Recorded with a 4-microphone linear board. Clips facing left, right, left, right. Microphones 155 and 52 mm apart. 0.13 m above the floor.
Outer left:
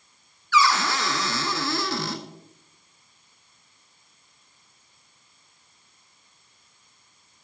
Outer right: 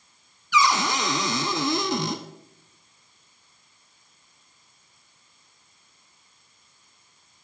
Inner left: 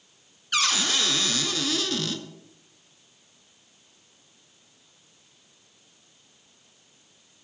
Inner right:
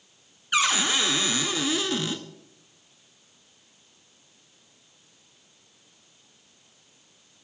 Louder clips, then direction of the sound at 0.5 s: Even, inner right 2 dB; 20° right (ahead or behind).